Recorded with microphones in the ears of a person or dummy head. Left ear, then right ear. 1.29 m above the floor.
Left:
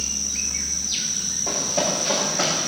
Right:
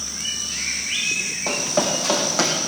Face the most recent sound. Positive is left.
turn(degrees=-60)  # may be behind; listen again after turning